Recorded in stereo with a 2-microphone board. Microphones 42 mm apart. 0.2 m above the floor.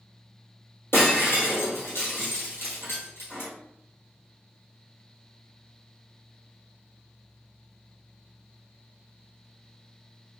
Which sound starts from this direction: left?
Breaking glass, at 0.9 s.